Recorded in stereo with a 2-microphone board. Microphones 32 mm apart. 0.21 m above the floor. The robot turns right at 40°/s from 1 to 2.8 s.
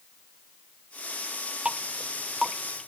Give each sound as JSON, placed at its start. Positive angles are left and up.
{"t": 1.6, "sound": "dripping", "side_deg": -40}